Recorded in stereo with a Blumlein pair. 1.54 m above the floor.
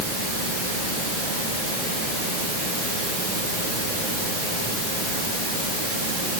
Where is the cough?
I don't hear a cough.